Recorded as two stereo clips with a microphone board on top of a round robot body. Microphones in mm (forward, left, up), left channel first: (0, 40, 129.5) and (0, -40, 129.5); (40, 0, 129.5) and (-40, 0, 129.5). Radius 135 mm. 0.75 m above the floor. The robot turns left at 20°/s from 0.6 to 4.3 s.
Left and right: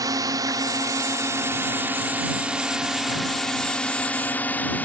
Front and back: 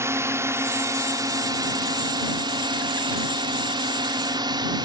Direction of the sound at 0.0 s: 130° right.